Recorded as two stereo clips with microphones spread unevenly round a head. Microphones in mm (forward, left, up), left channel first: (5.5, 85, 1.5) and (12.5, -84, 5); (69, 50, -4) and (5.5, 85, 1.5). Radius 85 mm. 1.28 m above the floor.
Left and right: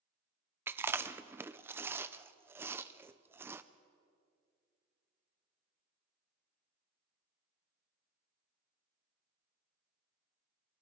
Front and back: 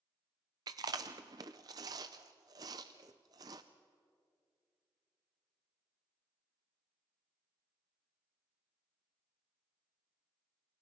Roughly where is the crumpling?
I don't hear crumpling.